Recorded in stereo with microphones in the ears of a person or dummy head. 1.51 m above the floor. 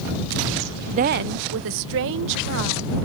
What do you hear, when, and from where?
0.9 s a woman speaking: 35° right (ahead or behind); by 3.0 s 65° right (ahead or behind)